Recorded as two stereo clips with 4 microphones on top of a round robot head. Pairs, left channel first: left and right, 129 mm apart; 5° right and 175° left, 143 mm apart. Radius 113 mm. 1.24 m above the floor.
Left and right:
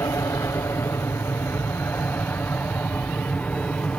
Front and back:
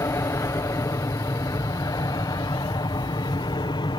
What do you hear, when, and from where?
0.0 s an aircraft: 40° left; by 4.0 s 15° left